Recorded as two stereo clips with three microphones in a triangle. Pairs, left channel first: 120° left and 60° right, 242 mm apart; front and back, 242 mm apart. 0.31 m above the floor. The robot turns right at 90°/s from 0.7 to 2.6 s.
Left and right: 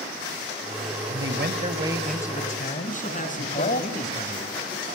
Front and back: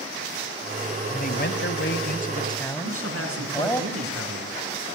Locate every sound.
1.1 s a man speaking: 60° right, 1.7 m; by 3.8 s 75° left, 1.7 m
2.8 s a man speaking: 175° left, 3.5 m